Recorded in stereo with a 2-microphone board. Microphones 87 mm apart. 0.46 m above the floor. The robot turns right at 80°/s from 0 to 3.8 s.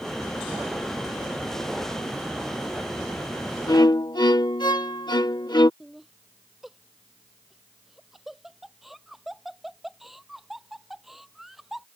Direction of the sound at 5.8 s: 5° right (ahead or behind).